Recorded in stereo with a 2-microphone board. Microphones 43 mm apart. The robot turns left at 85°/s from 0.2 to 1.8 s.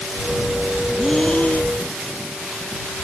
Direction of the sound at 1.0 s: 175° right.